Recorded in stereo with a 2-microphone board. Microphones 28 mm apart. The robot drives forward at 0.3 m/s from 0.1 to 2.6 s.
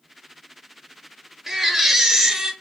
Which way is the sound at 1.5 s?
10° right (ahead or behind).